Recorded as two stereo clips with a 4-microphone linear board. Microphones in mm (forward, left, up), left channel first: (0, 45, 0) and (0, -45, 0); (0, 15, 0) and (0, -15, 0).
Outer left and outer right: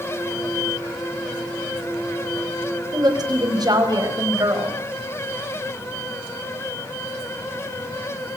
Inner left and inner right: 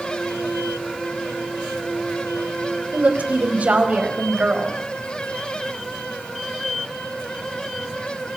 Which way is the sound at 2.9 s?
50° right (ahead or behind).